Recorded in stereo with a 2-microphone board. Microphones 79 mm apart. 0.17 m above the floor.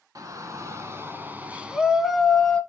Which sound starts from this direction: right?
A shout, at 0.1 s.